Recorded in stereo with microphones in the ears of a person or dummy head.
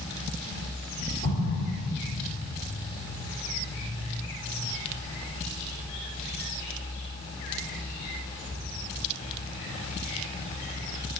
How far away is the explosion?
About 4.5 m.